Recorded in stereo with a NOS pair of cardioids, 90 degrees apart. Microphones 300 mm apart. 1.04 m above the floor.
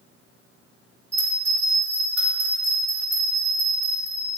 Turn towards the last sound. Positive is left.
turn(degrees=5)